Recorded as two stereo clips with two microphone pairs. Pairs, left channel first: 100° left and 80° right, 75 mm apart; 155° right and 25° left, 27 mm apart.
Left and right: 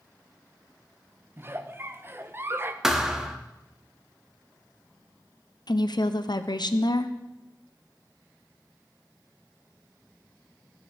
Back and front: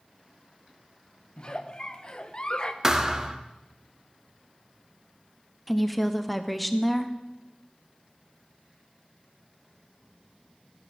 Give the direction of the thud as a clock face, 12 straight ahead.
12 o'clock.